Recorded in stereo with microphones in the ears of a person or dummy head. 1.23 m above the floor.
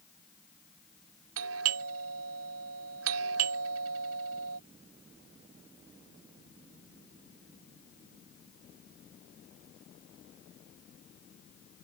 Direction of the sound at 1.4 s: 75° right (ahead or behind).